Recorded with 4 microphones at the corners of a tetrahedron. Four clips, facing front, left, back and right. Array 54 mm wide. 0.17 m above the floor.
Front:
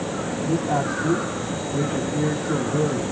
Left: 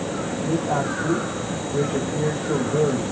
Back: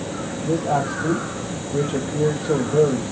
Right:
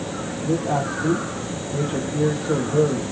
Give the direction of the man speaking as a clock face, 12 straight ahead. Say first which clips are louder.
Right 1 dB, back 2 dB; 5 o'clock.